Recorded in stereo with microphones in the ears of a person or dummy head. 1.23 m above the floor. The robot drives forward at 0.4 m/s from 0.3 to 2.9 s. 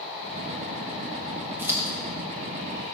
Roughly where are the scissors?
Centre.